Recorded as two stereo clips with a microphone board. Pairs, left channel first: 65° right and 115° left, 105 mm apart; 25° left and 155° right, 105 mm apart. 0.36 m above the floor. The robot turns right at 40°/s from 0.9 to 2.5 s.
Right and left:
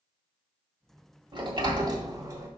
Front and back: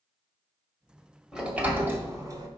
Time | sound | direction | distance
1.3 | a sliding door | 120° left | 1.4 m